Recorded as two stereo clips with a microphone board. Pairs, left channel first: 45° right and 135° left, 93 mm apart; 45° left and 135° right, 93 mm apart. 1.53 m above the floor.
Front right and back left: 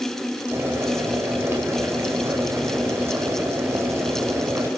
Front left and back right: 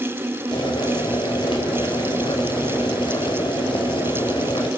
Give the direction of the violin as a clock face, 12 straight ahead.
I don't hear a violin.